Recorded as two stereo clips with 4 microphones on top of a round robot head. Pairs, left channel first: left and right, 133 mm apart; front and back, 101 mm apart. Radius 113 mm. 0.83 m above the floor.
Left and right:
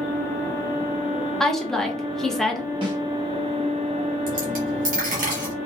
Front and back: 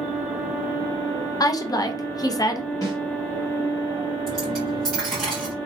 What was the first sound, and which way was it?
A woman speaking, 5° left.